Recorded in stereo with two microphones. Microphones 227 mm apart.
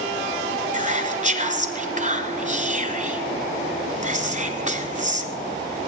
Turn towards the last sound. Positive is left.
turn(degrees=-35)  # may be behind; listen again after turning